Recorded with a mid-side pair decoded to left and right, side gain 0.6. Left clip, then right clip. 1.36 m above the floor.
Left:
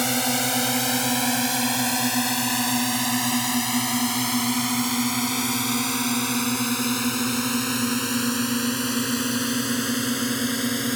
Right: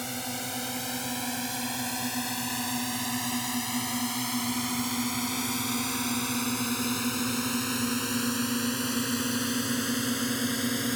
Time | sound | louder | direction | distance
0.0 | a drone | left 11 dB | 55° left | ?